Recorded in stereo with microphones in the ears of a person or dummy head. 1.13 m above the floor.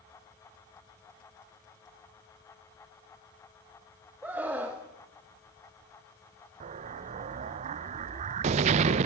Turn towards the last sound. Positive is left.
turn(degrees=-40)  # may be behind; listen again after turning